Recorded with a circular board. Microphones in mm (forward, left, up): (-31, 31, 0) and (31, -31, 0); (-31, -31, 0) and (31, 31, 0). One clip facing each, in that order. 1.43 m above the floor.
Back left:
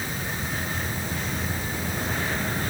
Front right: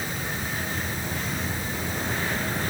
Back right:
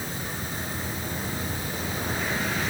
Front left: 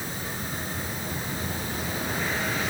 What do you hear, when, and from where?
Only background noise.